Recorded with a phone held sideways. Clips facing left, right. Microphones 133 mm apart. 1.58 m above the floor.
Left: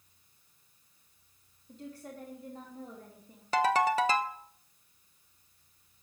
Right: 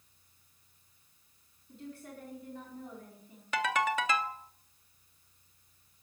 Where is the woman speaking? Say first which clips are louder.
Left 1 dB; 40° left (ahead or behind), 3 m.